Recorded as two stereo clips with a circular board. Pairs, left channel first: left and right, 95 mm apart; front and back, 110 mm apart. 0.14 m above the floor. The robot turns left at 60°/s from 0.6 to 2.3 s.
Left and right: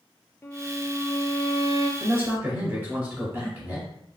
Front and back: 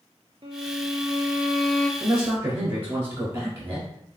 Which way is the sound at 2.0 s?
115° right.